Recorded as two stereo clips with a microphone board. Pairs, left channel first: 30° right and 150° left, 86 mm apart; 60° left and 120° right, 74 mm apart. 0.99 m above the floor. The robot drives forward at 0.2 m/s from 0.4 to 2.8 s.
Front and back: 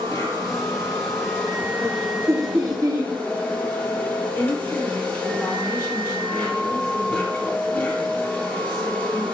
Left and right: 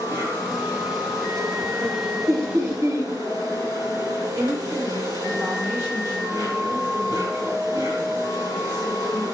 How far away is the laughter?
About 0.6 m.